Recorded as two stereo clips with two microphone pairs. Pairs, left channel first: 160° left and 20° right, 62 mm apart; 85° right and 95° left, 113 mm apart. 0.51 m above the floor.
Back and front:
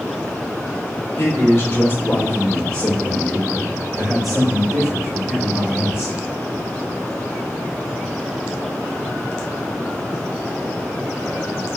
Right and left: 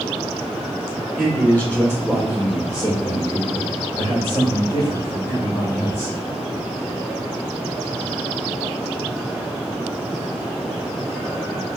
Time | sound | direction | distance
1.2 | a man speaking | 170° right | 1.5 m